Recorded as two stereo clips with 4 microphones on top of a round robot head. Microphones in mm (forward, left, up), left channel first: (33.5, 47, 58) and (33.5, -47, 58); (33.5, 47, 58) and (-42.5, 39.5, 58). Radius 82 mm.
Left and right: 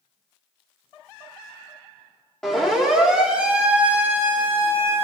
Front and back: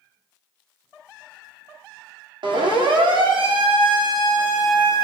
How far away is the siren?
About 7.5 m.